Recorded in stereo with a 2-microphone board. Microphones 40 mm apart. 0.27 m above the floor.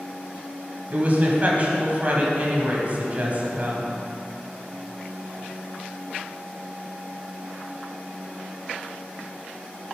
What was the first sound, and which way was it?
A woman speaking, 40° right (ahead or behind).